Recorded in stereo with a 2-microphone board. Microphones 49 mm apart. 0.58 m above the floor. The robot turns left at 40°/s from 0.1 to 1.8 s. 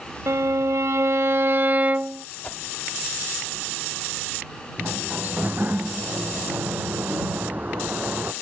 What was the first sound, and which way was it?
A violin, 80° right.